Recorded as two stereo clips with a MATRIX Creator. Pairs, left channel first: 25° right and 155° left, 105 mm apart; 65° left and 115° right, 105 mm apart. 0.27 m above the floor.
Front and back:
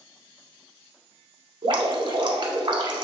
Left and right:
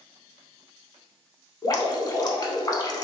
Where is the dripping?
115° left, 0.6 m.